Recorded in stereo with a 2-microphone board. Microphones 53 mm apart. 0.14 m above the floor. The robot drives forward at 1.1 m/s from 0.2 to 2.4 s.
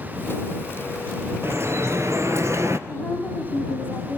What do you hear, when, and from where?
1.4 s dripping: 50° right (ahead or behind), 1.8 m; by 2.8 s 65° right (ahead or behind), 1.5 m
2.9 s a woman speaking: 30° left (ahead or behind), 3.5 m